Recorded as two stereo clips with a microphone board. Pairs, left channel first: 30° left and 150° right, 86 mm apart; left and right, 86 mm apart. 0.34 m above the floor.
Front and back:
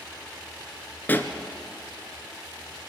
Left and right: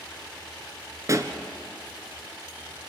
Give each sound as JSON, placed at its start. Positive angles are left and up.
{"t": 1.1, "sound": "a pop", "azimuth_deg": -40, "distance_m": 1.6}